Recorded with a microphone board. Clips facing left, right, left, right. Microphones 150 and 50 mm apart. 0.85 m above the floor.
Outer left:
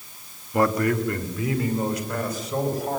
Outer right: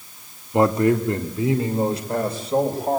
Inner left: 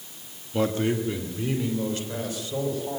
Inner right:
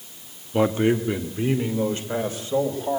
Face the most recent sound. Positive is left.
turn(degrees=-30)  # may be behind; listen again after turning